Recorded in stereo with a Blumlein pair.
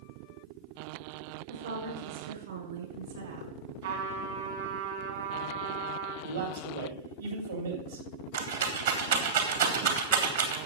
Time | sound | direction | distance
1.5 | a woman speaking | 65° right | 6 m
3.8 | a trumpet | 60° right | 3 m
6.2 | a man speaking | 70° right | 2.5 m
8.3 | a rattle | 65° right | 2.5 m